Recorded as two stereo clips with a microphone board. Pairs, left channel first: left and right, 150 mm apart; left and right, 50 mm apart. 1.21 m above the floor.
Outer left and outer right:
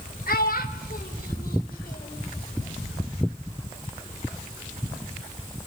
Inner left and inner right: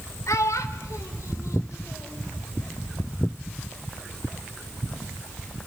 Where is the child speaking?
85° left, 3.5 m; by 2.2 s 75° left (ahead or behind), 4 m.